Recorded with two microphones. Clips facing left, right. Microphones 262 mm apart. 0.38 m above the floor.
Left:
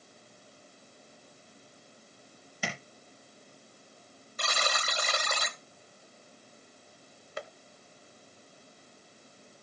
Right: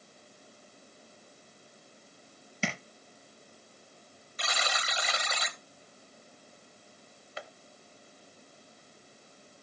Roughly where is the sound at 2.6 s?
Right.